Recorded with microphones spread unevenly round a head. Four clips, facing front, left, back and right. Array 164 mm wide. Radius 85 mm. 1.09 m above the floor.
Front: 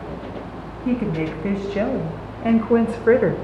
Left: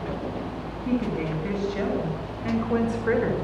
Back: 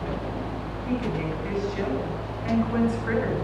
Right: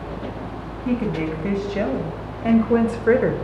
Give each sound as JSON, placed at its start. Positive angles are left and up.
{"t": 0.8, "sound": "a woman speaking", "azimuth_deg": -15, "distance_m": 7.0}